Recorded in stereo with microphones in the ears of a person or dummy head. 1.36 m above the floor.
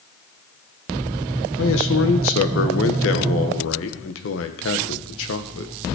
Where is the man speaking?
70° left (ahead or behind), 1.4 m.